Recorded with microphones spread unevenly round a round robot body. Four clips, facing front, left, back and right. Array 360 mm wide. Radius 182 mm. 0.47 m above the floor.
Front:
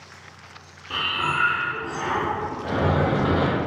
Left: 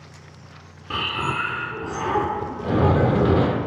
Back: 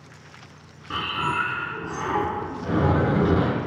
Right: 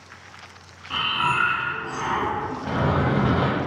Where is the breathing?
105° left, 0.8 m.